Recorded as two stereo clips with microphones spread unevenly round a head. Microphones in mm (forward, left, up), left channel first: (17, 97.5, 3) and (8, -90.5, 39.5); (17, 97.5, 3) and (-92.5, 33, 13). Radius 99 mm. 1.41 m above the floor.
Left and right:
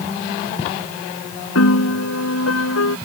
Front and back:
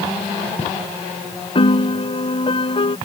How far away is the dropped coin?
I don't hear a dropped coin.